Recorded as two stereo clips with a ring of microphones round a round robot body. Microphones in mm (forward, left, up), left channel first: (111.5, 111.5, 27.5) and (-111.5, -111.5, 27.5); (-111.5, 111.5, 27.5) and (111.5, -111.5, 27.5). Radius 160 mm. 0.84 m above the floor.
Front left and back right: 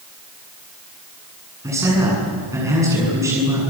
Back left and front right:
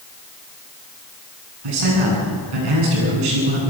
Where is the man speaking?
55° right, 9 m.